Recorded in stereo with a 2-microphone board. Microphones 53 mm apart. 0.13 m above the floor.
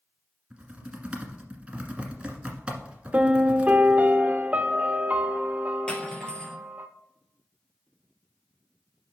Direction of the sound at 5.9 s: 15° left (ahead or behind).